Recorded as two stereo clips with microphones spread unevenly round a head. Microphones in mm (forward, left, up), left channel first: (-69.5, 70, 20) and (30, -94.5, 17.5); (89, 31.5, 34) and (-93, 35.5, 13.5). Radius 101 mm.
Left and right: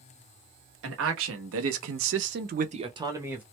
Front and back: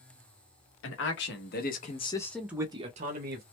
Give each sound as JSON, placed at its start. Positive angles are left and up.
{"t": 0.8, "sound": "a man speaking", "azimuth_deg": -30, "distance_m": 1.2}